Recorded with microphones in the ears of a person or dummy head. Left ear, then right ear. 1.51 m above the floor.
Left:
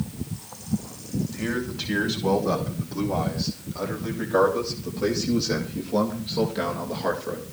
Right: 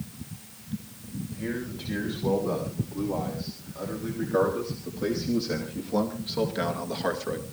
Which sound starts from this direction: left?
A man speaking, at 1.3 s.